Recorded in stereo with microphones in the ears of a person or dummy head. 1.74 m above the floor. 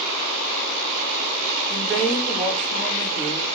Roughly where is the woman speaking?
Centre.